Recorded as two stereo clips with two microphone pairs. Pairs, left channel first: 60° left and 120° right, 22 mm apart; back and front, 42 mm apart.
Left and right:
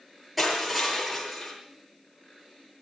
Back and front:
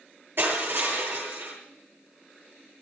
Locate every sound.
0.4 s crushing: 30° right, 8.5 m